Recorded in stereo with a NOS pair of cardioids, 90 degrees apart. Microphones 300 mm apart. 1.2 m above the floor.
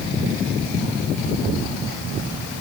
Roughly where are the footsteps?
I don't hear footsteps.